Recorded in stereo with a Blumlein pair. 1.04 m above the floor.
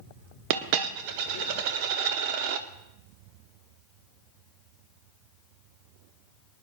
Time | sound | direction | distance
0.5 | a dropped coin | 45° right | 1.1 m